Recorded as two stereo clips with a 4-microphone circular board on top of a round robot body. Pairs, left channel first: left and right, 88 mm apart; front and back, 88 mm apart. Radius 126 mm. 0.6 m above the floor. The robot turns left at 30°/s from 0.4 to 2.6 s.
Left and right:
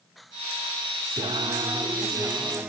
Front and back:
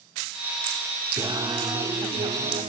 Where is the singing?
125° right, 0.8 m; by 2.7 s 170° right, 0.8 m.